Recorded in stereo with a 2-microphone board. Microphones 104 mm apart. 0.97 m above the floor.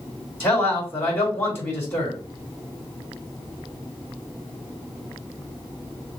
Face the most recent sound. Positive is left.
turn(degrees=20)  # may be behind; listen again after turning